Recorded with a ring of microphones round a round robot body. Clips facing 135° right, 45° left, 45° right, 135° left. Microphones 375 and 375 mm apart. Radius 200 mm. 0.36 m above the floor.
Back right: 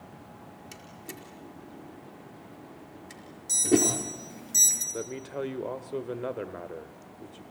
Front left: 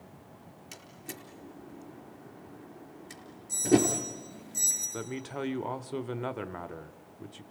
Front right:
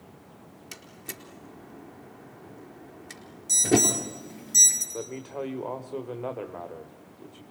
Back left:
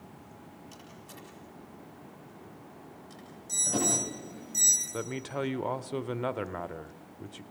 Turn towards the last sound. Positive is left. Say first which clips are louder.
# back right 2 dB, even
turn(degrees=105)